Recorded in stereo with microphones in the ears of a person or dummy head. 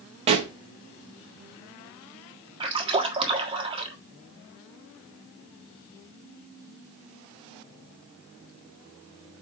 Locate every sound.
0.3 s a pop: 30° right (ahead or behind), 1.0 m
2.6 s a splash: 35° right (ahead or behind), 1.5 m